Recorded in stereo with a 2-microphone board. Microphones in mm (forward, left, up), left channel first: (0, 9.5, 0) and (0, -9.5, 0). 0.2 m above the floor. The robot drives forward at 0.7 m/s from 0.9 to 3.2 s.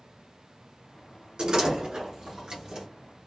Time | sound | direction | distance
1.4 | a door slam | 50° right (ahead or behind) | 1.6 m